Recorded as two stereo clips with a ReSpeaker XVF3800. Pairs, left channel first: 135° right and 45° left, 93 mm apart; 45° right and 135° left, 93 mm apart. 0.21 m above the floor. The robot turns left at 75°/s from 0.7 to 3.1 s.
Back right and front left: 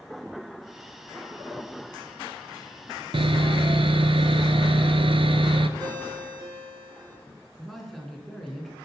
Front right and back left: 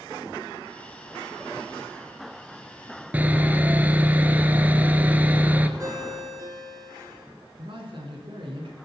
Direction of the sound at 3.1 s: 60° left.